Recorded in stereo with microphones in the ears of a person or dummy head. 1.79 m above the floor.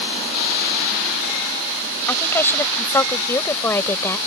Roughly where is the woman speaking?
Centre.